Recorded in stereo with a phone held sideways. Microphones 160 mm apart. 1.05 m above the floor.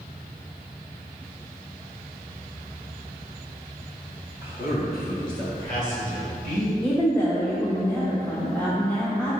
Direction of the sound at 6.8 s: 10° left (ahead or behind).